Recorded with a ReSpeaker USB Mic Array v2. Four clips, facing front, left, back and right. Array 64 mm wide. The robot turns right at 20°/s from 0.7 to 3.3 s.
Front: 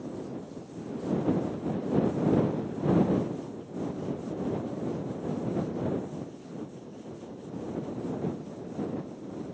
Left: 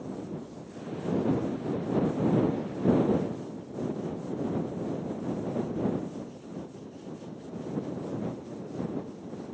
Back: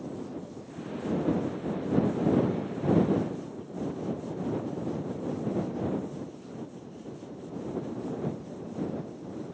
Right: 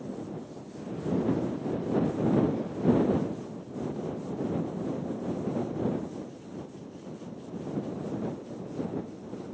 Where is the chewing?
No chewing in this recording.